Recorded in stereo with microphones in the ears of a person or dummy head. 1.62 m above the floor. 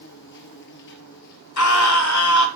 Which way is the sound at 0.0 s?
60° left (ahead or behind).